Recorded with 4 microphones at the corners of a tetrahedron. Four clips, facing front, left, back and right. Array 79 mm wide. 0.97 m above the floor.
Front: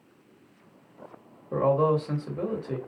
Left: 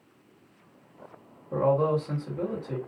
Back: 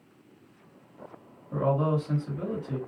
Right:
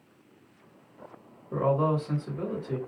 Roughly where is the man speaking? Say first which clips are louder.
Left 2 dB, front 4 dB; ahead.